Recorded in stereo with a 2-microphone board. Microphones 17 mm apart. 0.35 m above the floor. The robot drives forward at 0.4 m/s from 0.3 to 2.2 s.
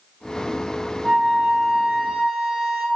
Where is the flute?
45° right (ahead or behind), 0.7 m; by 2.9 s 50° right (ahead or behind), 0.6 m.